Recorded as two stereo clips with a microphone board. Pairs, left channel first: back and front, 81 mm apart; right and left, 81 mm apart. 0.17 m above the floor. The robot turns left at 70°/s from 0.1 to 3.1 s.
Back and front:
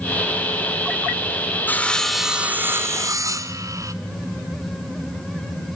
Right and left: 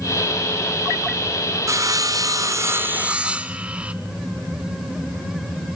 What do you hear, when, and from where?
1.7 s sawing: 120° left, 0.9 m; by 3.9 s 20° left, 0.9 m